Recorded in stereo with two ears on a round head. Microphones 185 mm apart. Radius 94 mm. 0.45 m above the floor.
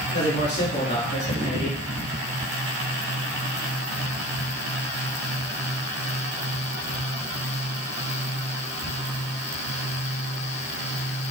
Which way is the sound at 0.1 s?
55° left (ahead or behind).